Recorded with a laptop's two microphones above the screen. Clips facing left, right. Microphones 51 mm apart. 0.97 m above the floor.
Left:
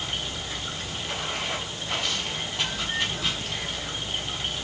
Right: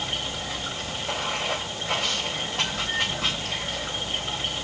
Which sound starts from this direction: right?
Running water, at 0.0 s.